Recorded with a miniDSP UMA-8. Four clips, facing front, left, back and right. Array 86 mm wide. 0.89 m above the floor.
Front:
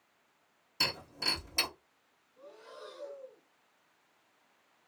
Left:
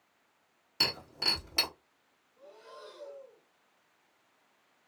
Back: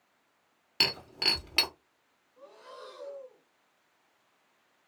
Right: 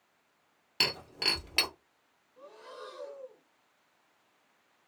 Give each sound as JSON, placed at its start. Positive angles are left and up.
{"t": 0.8, "sound": "breaking glass", "azimuth_deg": -150, "distance_m": 1.4}
{"t": 2.4, "sound": "breathing", "azimuth_deg": -125, "distance_m": 1.2}